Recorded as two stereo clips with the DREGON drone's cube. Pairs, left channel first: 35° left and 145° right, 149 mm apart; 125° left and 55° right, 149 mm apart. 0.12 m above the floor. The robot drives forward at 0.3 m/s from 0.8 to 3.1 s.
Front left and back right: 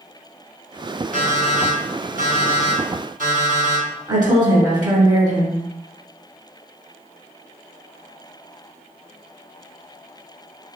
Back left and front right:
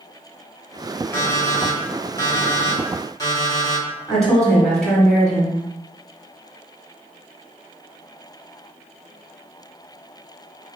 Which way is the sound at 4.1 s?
150° right.